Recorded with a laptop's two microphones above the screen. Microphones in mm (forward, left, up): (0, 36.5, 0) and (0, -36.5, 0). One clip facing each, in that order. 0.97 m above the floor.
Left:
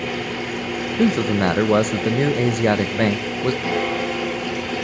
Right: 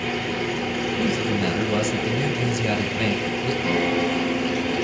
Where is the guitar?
30° left (ahead or behind), 8 m.